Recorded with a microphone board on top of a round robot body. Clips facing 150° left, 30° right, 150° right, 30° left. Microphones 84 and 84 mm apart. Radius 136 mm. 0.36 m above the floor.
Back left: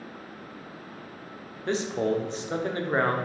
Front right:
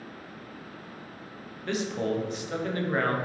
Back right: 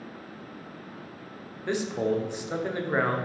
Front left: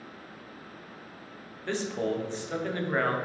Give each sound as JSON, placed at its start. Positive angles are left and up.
{"t": 1.7, "sound": "a man speaking", "azimuth_deg": 150, "distance_m": 1.0}